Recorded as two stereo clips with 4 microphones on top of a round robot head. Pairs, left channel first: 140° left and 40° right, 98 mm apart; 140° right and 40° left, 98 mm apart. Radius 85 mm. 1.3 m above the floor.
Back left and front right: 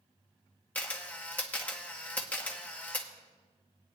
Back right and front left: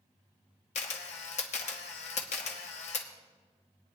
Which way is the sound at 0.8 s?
145° right.